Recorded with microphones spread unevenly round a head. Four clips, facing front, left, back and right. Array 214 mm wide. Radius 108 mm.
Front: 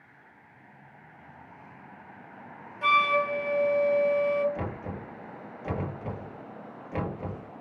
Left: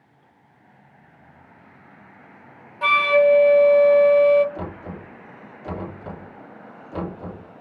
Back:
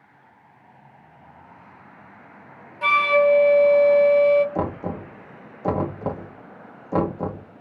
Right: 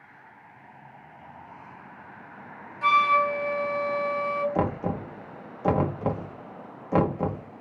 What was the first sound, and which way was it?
A flute, 130° left.